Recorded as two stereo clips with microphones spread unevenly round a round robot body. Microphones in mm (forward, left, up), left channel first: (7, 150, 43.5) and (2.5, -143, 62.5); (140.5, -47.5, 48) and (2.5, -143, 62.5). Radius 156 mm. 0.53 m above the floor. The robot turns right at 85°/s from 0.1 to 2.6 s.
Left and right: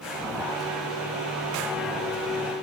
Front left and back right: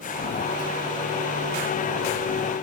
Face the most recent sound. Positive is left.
No sound to turn to.